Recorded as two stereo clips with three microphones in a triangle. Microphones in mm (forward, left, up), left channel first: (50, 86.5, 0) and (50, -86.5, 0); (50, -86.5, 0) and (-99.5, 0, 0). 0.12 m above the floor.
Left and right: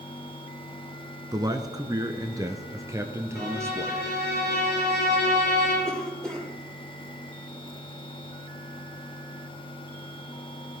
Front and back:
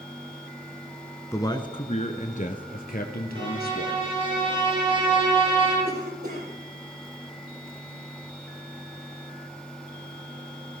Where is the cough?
175° left, 5 m.